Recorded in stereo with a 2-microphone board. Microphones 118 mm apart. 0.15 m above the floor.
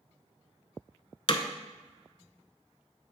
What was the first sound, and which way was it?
Hammering, 50° left (ahead or behind).